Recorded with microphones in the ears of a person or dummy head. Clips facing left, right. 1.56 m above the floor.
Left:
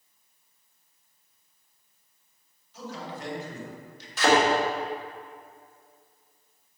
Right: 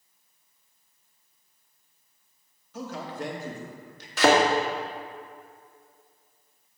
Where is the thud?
55° right (ahead or behind), 1.6 m.